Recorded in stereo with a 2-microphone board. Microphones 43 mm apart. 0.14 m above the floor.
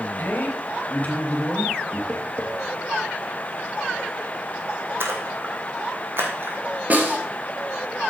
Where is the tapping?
30° left (ahead or behind), 1.9 m.